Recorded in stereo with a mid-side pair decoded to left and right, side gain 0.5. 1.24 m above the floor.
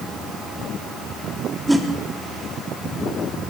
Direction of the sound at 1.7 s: 5° right.